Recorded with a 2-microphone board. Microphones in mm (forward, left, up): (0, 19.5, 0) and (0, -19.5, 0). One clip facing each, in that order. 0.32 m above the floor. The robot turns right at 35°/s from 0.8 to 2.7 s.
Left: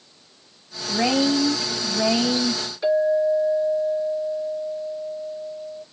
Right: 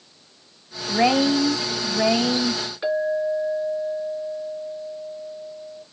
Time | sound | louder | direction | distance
0.9 | a woman speaking | right 2 dB | 60° right | 1.3 m
2.8 | a clink | left 4 dB | 25° right (ahead or behind) | 3 m